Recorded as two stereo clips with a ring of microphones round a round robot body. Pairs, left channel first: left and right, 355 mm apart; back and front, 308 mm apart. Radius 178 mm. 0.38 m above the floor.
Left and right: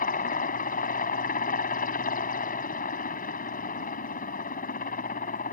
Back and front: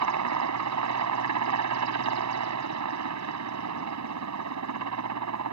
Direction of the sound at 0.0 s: 25° left.